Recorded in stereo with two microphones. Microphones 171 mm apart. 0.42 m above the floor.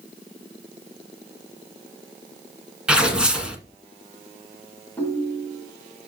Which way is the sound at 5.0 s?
10° left (ahead or behind).